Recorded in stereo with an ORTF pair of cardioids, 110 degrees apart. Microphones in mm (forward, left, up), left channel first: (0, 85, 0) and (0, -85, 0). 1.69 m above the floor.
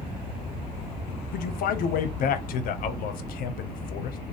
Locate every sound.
1.3 s a man speaking: 65° left, 0.7 m